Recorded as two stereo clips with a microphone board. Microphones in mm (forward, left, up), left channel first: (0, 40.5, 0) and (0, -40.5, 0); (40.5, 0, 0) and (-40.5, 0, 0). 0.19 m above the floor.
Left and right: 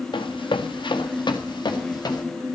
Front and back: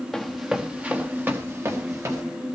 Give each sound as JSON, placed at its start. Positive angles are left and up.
{"t": 0.1, "sound": "running footsteps", "azimuth_deg": 85, "distance_m": 1.3}